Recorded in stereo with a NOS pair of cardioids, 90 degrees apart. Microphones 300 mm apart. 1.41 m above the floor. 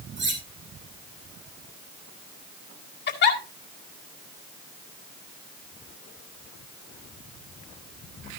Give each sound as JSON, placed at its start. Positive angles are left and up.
{"t": 0.2, "sound": "cutlery clinking", "azimuth_deg": -40, "distance_m": 5.0}
{"t": 3.1, "sound": "a giggle", "azimuth_deg": 40, "distance_m": 2.0}